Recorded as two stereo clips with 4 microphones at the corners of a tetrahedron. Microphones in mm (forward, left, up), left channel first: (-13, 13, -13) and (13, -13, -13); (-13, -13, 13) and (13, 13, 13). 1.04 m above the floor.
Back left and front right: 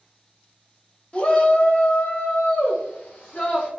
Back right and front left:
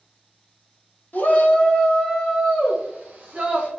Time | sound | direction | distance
1.1 | a shout | 165° right | 0.8 m